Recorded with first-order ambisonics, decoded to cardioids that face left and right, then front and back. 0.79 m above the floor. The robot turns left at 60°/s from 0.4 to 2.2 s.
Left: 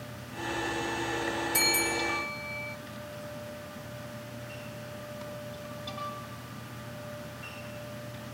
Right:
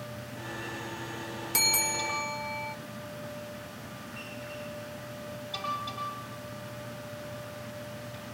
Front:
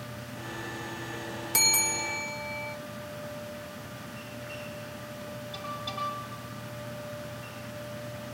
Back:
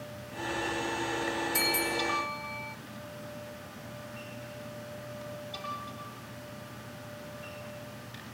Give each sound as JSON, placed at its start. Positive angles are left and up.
{"t": 1.5, "sound": "a bell", "azimuth_deg": -25, "distance_m": 0.7}